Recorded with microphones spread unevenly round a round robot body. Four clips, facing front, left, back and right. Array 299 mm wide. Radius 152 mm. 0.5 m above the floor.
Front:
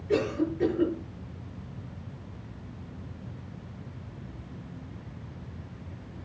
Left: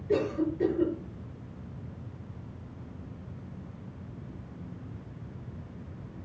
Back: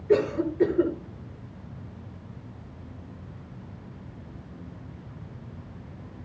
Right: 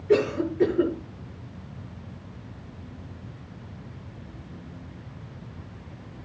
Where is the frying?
I don't hear frying.